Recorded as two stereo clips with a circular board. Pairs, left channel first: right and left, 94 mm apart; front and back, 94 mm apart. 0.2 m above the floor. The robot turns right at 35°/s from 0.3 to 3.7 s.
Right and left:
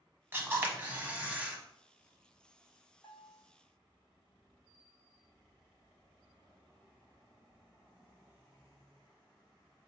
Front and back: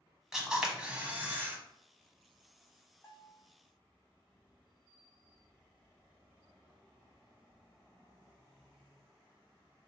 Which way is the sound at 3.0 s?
70° right.